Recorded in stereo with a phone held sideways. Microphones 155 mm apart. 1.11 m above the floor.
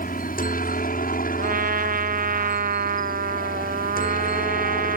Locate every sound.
0.0 s a helicopter: 65° left (ahead or behind)
1.4 s a trumpet: 65° right (ahead or behind)